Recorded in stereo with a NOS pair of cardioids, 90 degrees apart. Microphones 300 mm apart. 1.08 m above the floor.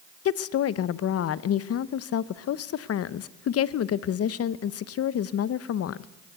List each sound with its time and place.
0.2 s a woman speaking: 55° left, 0.8 m